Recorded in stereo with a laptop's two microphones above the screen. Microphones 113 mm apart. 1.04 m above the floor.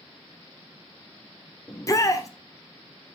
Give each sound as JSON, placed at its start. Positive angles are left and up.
{"t": 1.7, "sound": "a shout", "side_deg": 30, "distance_m": 0.8}